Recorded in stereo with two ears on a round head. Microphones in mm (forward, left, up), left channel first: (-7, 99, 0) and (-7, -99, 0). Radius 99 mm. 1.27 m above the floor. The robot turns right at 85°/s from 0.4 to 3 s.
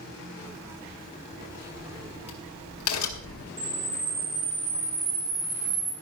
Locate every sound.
1.4 s a crack: 45° right (ahead or behind), 2.5 m; by 3.5 s 75° left (ahead or behind), 2.5 m
3.6 s a camera shutter: 45° right (ahead or behind), 7.5 m